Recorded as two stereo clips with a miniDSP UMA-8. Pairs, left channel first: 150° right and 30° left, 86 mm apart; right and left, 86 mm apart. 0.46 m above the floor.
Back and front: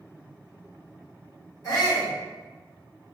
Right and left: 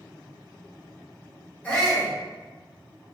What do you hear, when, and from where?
1.6 s a shout: 150° right, 1.7 m